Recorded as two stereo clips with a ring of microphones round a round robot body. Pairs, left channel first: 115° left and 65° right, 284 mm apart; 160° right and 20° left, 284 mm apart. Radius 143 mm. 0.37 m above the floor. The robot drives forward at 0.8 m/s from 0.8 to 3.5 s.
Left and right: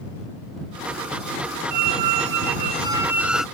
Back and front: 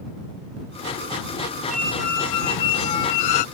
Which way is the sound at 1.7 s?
65° right.